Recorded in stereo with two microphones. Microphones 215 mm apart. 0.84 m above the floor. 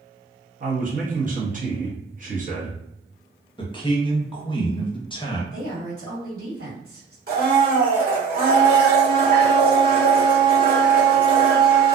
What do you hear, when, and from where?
0.6 s a man speaking: 40° right (ahead or behind), 0.9 m
3.6 s a man speaking: 20° left (ahead or behind), 0.7 m
5.5 s a woman speaking: 75° right (ahead or behind), 1.8 m
7.3 s a blender: 50° right (ahead or behind), 1.2 m